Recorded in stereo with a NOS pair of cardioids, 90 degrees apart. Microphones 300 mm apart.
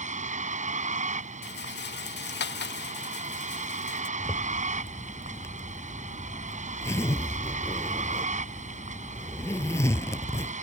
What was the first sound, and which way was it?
A vehicle, 25° right.